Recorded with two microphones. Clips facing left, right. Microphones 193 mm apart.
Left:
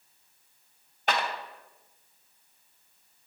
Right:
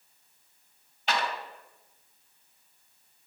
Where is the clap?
45° left (ahead or behind), 1.2 m.